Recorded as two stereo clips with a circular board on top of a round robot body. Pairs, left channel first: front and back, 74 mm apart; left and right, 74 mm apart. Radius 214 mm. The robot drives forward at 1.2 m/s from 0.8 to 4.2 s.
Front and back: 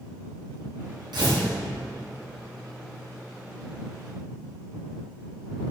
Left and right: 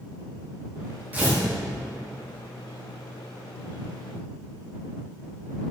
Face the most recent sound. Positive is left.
turn(degrees=-170)